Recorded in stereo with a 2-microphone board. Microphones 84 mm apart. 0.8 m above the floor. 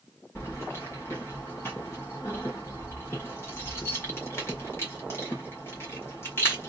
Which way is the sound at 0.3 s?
30° left (ahead or behind).